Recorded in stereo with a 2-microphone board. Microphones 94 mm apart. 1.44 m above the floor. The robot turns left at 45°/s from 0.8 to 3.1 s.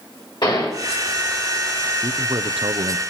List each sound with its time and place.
0.4 s a gunshot: 55° left (ahead or behind), 6 m
2.0 s a man speaking: 45° right, 0.6 m; by 3.0 s 90° right, 0.6 m